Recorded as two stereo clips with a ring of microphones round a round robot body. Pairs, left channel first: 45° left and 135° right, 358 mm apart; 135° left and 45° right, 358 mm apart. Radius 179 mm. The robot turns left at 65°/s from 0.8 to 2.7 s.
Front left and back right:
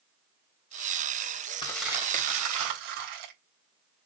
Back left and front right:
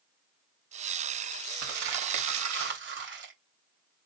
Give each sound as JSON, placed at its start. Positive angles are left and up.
{"t": 1.6, "sound": "crumpling", "azimuth_deg": -30, "distance_m": 3.0}